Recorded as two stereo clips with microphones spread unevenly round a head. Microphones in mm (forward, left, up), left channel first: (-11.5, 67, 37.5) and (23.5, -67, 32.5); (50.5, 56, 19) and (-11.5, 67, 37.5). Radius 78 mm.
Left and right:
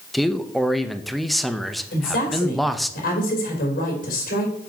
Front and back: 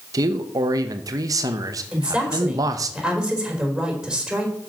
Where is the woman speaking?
90° left, 3.5 m.